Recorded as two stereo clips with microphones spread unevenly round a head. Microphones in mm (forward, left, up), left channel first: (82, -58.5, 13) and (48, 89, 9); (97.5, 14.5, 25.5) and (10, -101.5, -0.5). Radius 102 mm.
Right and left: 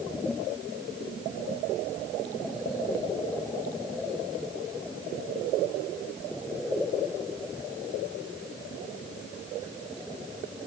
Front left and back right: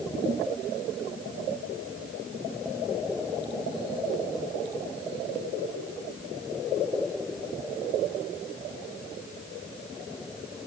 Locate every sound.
Only background noise.